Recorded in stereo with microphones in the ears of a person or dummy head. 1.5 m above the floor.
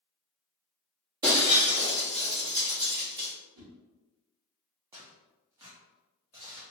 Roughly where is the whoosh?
Right.